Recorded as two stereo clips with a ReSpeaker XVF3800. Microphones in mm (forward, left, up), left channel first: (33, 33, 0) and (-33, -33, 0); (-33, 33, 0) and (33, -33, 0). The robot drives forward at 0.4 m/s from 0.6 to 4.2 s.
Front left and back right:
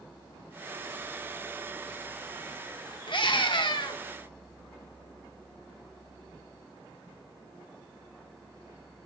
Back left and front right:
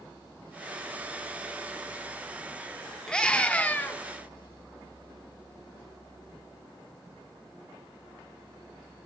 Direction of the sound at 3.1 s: 55° left.